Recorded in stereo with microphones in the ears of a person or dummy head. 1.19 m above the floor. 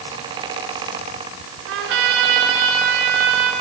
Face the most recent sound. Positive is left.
turn(degrees=-65)  # may be behind; listen again after turning